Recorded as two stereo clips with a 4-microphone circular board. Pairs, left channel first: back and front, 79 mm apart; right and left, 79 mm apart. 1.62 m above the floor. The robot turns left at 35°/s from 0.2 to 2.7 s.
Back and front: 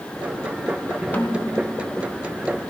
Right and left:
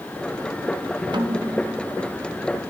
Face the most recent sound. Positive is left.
turn(degrees=55)